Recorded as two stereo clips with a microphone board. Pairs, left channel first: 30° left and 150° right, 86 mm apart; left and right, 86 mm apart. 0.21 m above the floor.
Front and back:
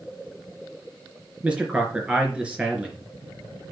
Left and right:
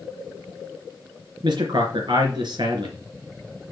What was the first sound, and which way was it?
A man speaking, 75° right.